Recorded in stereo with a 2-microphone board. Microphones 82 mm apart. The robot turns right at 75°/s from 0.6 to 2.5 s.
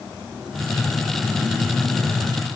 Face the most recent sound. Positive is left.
No sound to turn to.